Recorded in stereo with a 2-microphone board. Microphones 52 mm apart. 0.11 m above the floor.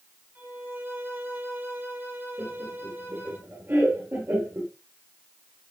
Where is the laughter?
45° right (ahead or behind), 2.5 m.